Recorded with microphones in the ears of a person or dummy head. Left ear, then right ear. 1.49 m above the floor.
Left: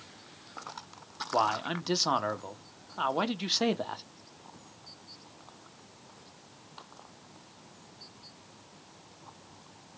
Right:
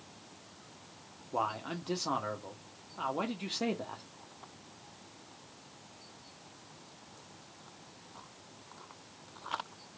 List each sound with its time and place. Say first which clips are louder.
1.3 s a man speaking: left 6 dB; 40° left (ahead or behind), 0.7 m